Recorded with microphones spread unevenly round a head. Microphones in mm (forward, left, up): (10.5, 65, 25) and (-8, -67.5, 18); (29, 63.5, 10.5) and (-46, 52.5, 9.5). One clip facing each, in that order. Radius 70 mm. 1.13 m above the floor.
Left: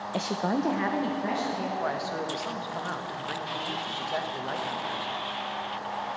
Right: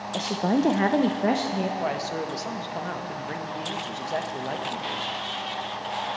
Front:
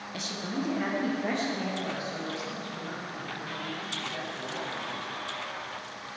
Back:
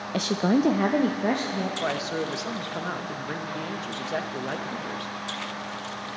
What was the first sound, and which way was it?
A woman speaking, 160° left.